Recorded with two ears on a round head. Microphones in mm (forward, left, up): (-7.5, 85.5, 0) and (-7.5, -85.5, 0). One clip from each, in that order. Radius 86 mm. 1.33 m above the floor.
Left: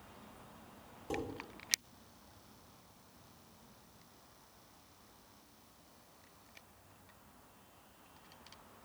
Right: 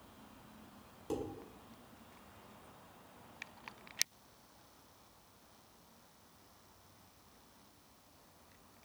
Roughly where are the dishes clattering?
Right.